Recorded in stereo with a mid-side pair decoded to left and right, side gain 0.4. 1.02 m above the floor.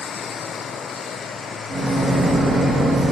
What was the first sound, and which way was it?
A microwave, 45° right.